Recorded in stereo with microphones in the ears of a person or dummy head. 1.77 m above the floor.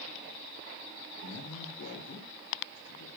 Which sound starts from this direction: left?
A man speaking, at 1.2 s.